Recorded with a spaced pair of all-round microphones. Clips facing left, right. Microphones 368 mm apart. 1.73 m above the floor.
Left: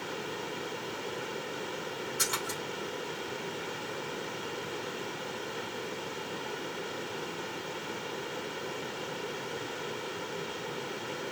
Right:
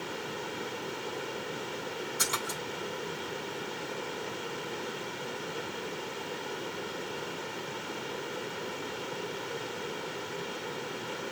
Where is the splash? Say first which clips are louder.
Even; 25° left (ahead or behind), 1.4 m.